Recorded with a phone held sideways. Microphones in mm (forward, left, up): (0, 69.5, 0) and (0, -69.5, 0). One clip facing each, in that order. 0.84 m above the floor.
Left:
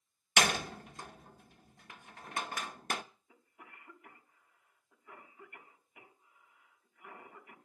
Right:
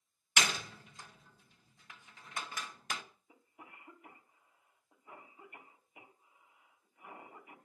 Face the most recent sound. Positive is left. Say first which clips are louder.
# right 1 dB
turn(degrees=-25)  # may be behind; listen again after turning